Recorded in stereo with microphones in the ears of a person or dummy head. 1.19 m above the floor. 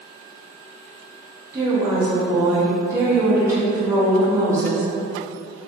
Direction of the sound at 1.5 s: 15° right (ahead or behind).